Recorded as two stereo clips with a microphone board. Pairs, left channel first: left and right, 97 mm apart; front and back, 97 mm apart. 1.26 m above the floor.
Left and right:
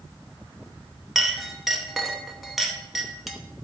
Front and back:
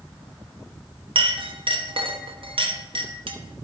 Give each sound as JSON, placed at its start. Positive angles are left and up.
{"t": 1.1, "sound": "a clink", "azimuth_deg": 180, "distance_m": 1.0}